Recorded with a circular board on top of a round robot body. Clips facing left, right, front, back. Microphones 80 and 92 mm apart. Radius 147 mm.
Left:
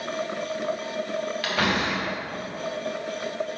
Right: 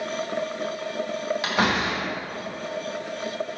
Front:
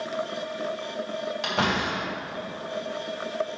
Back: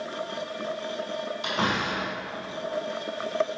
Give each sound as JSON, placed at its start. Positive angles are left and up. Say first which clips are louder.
{"t": 1.4, "sound": "a door slam", "louder": "right 2 dB, front 1 dB", "azimuth_deg": -20, "distance_m": 2.5}